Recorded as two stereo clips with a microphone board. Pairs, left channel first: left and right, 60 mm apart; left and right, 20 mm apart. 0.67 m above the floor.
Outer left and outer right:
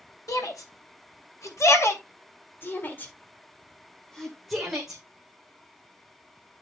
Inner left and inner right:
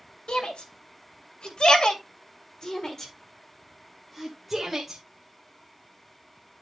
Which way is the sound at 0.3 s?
75° left (ahead or behind).